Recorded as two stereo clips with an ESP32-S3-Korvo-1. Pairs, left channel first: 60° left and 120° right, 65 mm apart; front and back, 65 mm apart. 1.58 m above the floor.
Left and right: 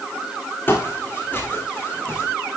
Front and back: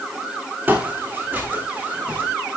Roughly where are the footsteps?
Behind left.